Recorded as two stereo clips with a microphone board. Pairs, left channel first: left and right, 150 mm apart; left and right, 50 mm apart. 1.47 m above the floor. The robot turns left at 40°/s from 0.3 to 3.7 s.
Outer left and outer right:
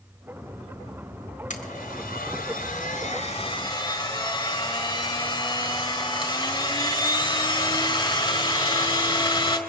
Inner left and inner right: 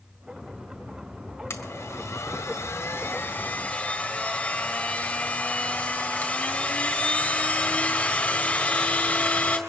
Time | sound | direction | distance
1.5 | a blender | 120° left | 3.5 m